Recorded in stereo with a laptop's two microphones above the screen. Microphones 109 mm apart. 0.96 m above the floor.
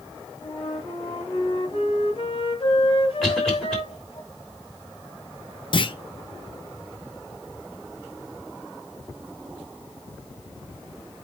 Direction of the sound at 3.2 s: 5° left (ahead or behind).